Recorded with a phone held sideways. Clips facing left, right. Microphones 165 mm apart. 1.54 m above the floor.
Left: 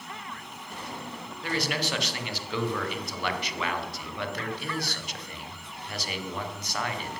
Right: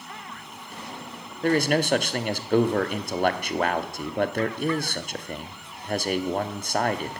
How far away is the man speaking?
About 0.8 m.